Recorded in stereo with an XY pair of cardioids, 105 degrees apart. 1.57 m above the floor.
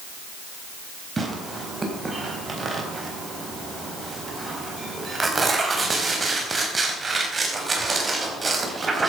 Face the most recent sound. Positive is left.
turn(degrees=-30)